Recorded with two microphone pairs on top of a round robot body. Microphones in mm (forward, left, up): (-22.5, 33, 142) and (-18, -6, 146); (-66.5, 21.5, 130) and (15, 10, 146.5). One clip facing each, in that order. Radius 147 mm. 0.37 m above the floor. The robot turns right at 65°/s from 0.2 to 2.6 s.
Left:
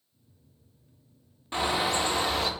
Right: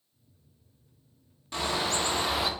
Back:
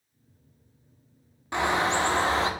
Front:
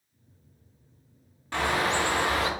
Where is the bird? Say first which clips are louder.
Left 3 dB, back 1 dB; 130° left, 1.1 m; by 2.5 s 165° right, 1.1 m.